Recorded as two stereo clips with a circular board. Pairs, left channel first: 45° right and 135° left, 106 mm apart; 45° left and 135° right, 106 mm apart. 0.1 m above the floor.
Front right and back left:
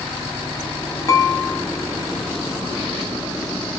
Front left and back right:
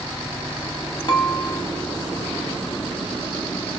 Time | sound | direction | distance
1.1 | dishes clattering | 10° left | 1.8 m